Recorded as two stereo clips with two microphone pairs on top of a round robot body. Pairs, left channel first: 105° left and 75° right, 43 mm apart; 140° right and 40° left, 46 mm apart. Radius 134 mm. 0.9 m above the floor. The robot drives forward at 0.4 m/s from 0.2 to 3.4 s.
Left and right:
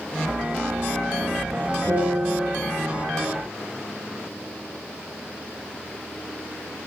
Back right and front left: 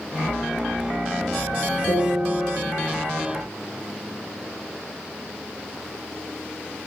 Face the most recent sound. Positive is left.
turn(degrees=-155)